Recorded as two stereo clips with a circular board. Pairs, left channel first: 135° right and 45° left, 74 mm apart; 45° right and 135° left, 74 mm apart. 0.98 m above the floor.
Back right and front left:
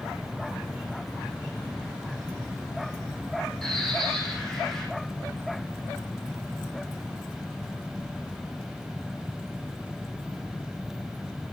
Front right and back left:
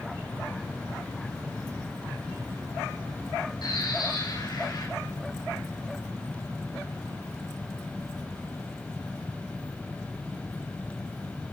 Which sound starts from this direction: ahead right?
A bird, at 3.6 s.